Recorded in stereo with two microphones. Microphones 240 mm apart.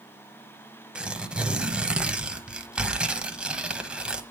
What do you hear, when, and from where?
0.9 s tearing paper: 5° right (ahead or behind), 1.0 m